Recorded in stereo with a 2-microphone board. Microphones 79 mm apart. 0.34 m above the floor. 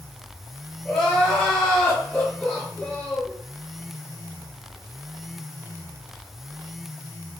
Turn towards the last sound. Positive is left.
turn(degrees=10)  # may be behind; listen again after turning